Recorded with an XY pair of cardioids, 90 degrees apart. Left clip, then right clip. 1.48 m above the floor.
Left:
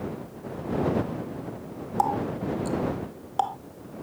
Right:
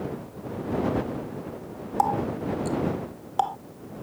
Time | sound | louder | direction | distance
2.0 | a running tap | right 1 dB | 5° right | ?